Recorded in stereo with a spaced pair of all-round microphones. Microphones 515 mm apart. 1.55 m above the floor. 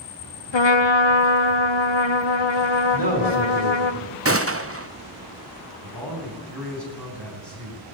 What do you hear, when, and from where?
0.5 s a trumpet: 55° left (ahead or behind), 0.9 m
2.9 s a man speaking: 40° left (ahead or behind), 6 m
4.2 s a gunshot: 25° right (ahead or behind), 0.8 m
5.8 s a man speaking: 40° right (ahead or behind), 9.5 m